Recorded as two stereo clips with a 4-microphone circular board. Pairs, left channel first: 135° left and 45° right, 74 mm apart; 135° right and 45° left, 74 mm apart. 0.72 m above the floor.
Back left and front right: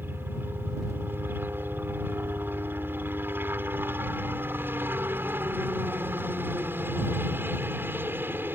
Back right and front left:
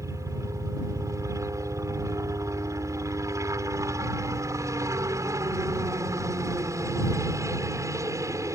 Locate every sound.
0.0 s a helicopter: 10° left